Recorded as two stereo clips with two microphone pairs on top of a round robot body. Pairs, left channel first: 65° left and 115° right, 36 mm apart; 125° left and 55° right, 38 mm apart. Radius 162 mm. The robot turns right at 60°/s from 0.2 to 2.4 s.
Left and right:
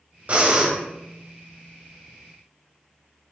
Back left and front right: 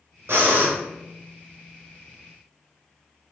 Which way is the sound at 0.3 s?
70° right.